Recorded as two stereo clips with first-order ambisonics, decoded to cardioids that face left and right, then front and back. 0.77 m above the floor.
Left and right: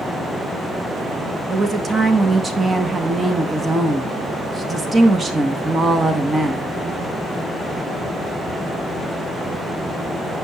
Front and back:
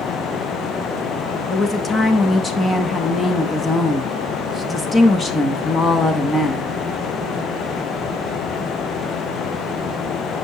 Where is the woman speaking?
45° right, 0.9 m.